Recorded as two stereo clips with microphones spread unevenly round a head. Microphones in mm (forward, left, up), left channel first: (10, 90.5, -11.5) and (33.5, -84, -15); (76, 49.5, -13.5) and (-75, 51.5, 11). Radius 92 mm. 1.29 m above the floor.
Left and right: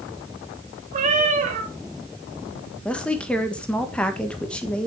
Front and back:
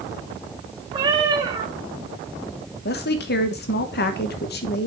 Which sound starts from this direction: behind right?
A cat meowing, at 0.9 s.